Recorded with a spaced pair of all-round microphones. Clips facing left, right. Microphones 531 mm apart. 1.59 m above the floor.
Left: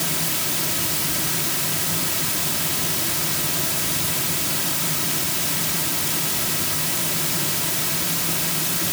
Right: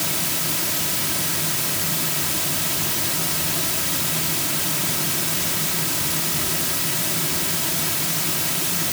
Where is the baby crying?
No baby crying in this recording.